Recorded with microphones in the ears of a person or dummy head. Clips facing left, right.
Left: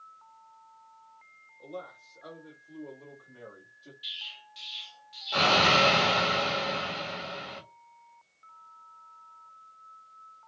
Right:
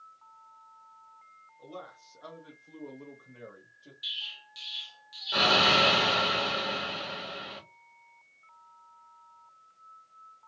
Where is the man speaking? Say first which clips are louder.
Left 3 dB; 65° right (ahead or behind), 1.2 m; by 3.9 s 5° right (ahead or behind), 1.0 m.